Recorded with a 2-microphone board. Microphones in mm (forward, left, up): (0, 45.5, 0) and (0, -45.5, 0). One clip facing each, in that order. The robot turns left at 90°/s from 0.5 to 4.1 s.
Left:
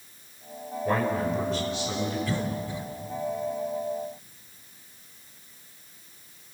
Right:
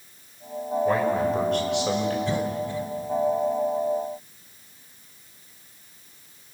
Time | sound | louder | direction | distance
0.8 | a man speaking | right 2 dB | straight ahead | 6 m
2.3 | a cough | right 4 dB | 25° right (ahead or behind) | 2.5 m